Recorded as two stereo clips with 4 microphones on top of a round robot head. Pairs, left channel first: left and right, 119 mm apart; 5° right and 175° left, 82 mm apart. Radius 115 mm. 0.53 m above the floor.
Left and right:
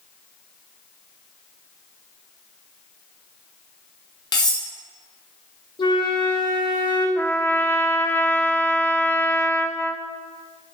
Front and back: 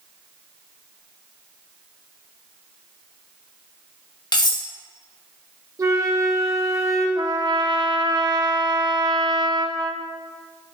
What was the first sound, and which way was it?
Cutlery clinking, 30° left.